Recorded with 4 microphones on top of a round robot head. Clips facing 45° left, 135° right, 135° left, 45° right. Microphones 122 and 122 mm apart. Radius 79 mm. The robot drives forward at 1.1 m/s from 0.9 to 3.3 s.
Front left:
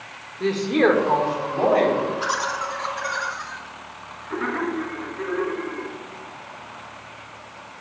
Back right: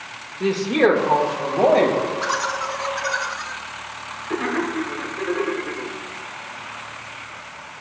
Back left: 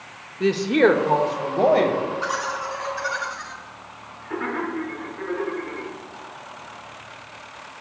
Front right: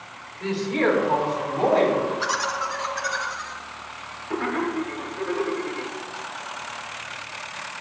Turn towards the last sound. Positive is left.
turn(degrees=-105)